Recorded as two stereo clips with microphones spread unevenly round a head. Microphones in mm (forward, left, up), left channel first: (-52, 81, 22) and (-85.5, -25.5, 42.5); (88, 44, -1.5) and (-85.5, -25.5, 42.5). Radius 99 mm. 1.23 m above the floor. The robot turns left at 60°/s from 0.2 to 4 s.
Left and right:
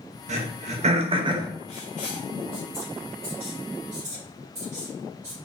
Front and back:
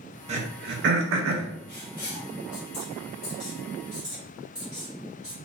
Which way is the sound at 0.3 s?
95° right.